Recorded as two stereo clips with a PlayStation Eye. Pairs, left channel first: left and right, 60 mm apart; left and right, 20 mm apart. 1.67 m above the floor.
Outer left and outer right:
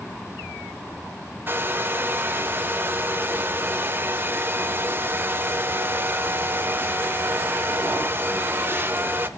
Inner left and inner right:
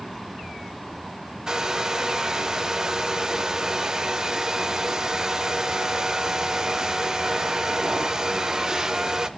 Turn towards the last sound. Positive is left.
turn(degrees=-35)  # may be behind; listen again after turning